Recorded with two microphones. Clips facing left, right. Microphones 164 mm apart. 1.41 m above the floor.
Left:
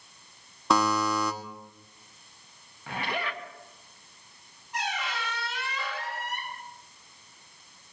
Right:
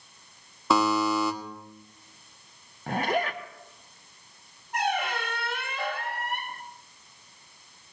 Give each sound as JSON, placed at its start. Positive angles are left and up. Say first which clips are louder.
{"t": 0.7, "sound": "a buzzer", "louder": "right 2 dB", "side_deg": 0, "distance_m": 1.2}
{"t": 2.9, "sound": "a zipper", "louder": "right 6 dB", "side_deg": -45, "distance_m": 1.0}
{"t": 4.7, "sound": "a squeak", "louder": "right 6 dB", "side_deg": -55, "distance_m": 1.0}